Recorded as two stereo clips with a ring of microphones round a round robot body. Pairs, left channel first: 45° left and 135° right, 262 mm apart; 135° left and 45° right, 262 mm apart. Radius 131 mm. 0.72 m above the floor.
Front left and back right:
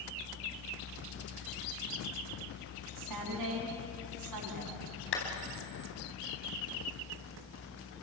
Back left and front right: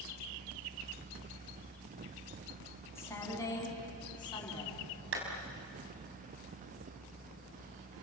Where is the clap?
Straight ahead, 4.5 m.